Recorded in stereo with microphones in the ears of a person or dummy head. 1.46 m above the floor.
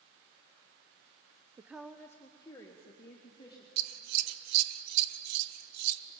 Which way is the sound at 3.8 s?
85° right.